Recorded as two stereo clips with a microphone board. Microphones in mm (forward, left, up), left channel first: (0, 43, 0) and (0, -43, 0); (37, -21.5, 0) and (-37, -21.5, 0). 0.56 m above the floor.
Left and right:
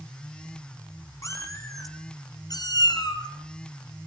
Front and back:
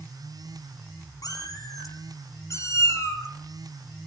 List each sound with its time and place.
1.2 s a cat meowing: 40° left, 3.5 m; by 3.3 s 55° left, 3.5 m